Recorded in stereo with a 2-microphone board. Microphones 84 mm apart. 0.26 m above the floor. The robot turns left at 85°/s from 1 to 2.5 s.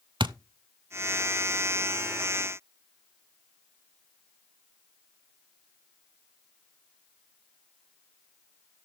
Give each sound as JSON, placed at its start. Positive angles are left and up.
{"t": 0.2, "sound": "a thud", "side_deg": -70, "distance_m": 0.5}